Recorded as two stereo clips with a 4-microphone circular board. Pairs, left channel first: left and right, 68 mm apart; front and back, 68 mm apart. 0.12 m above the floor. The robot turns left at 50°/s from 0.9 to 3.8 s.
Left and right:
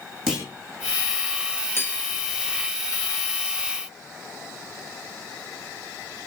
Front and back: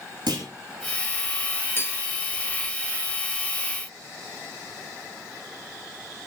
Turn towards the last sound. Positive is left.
turn(degrees=-55)